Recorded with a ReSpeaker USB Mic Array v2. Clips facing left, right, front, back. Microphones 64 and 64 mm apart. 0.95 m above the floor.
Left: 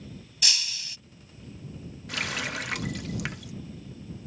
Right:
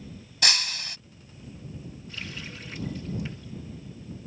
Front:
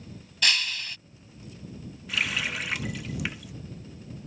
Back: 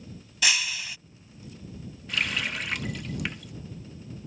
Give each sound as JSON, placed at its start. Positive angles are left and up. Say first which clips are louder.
{"t": 0.4, "sound": "breaking glass", "louder": "right 6 dB, even", "azimuth_deg": -100}
{"t": 2.1, "sound": "a running tap", "louder": "left 9 dB, even", "azimuth_deg": 90}